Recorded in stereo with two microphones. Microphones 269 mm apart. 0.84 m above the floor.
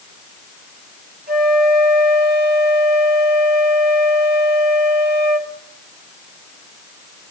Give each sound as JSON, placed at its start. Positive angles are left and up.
{"t": 1.3, "sound": "a flute", "side_deg": -35, "distance_m": 2.0}